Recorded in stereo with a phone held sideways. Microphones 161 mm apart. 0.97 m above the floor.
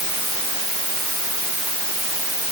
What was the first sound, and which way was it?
Only background noise.